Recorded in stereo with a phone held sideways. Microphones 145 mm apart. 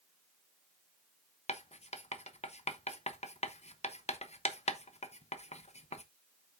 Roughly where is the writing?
Left.